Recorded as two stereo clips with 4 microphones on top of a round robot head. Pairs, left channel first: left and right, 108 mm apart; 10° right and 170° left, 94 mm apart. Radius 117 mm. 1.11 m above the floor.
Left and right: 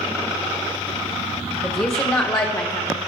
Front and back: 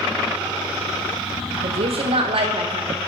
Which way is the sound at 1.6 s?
170° left.